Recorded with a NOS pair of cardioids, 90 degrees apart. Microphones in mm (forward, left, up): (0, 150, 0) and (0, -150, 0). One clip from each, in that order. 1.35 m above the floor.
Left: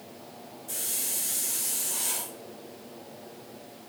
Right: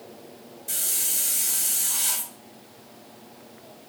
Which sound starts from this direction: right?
A hiss, at 0.7 s.